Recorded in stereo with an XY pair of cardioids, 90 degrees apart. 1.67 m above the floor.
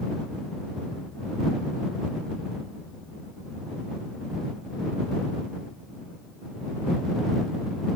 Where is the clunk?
No clunk in this recording.